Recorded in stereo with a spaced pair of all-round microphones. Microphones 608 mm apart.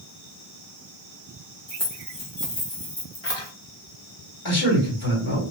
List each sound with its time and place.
1.7 s keys jangling: 70° left (ahead or behind), 2.5 m; by 3.5 s 40° left (ahead or behind), 1.3 m
4.5 s a man speaking: 55° left (ahead or behind), 1.9 m